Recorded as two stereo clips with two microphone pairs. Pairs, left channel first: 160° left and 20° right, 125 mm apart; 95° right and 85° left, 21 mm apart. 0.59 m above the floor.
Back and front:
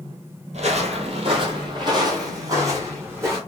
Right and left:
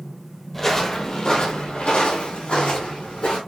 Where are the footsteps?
20° right, 1.0 m; by 3.4 s 90° right, 2.5 m.